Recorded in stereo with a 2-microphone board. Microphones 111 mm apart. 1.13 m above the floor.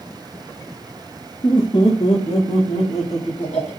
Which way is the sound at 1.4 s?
40° left (ahead or behind).